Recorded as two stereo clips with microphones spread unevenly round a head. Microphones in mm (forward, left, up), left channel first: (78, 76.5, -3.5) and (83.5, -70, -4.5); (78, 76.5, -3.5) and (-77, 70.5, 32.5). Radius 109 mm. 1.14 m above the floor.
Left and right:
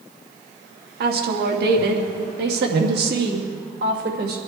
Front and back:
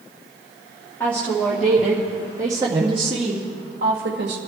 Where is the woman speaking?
75° right, 2 m; by 4.4 s 135° right, 1.9 m.